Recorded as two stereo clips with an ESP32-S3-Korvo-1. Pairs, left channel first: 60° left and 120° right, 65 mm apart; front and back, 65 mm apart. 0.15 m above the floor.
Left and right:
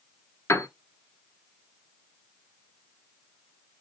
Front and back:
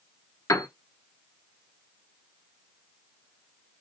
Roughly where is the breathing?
I don't hear breathing.